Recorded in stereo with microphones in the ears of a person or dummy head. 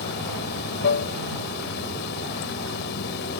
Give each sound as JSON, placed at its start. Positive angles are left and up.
{"t": 0.0, "sound": "running water", "side_deg": 65}